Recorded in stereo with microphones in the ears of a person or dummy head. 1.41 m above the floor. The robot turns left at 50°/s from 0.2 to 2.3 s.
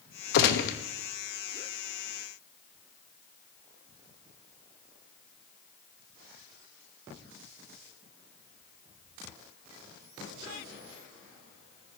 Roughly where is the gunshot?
Left.